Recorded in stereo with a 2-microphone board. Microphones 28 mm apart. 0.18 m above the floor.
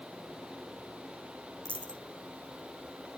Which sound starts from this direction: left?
A dropped coin, at 1.6 s.